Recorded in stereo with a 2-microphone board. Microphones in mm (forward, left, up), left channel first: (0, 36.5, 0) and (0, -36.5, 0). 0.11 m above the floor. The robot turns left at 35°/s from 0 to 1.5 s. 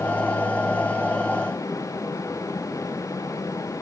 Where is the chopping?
No chopping in this recording.